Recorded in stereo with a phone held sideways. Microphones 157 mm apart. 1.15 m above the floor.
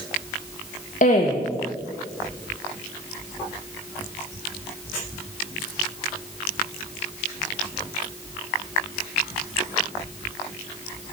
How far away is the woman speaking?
About 0.6 m.